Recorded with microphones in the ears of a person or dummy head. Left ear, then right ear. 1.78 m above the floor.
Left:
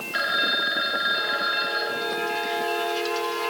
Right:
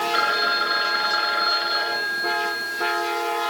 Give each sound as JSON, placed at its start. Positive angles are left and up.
{"t": 0.1, "sound": "a phone ringing", "side_deg": -20, "distance_m": 2.0}